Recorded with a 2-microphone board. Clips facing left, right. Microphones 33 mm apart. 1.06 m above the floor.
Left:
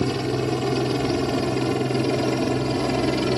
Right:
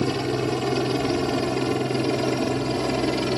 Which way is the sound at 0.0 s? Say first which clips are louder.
Even; 10° right (ahead or behind).